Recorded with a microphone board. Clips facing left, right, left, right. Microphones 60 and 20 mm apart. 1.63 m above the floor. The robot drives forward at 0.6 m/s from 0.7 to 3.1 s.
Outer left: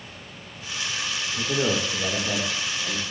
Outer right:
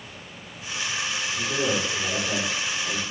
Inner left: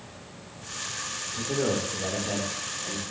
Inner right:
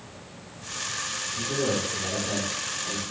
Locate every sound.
1.3 s a man speaking: 50° left (ahead or behind), 1.4 m; by 3.0 s 30° left (ahead or behind), 2 m